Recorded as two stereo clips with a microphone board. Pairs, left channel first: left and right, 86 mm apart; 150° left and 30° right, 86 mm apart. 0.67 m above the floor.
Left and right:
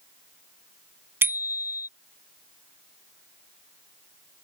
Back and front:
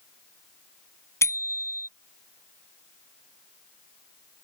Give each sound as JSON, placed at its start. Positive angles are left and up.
{"t": 1.2, "sound": "a bicycle bell", "azimuth_deg": -155}